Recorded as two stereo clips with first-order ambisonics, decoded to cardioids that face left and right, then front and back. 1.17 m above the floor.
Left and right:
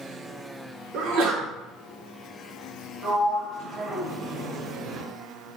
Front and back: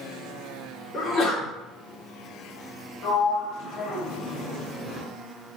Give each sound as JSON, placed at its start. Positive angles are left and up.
{"t": 0.9, "sound": "a sneeze", "azimuth_deg": -55, "distance_m": 1.0}
{"t": 3.0, "sound": "a sliding door", "azimuth_deg": -20, "distance_m": 1.9}